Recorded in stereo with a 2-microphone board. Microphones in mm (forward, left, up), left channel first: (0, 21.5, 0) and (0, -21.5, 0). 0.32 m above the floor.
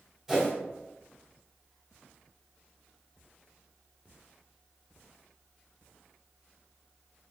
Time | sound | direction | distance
0.3 | a whoosh | 10° right (ahead or behind) | 2.0 m